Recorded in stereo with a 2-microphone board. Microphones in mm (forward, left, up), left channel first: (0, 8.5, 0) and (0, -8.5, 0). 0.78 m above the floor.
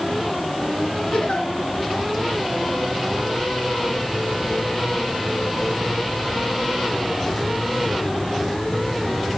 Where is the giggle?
75° left (ahead or behind), 3.5 m.